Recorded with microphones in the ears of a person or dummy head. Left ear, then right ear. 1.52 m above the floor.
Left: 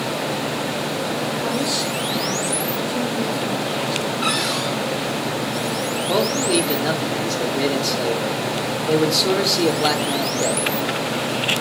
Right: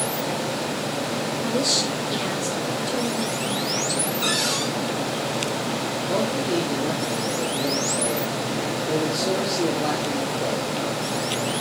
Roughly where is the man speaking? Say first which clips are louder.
Left 5 dB; left.